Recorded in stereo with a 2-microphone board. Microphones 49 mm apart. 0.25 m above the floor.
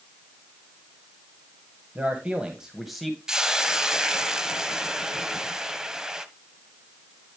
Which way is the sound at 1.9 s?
35° right (ahead or behind).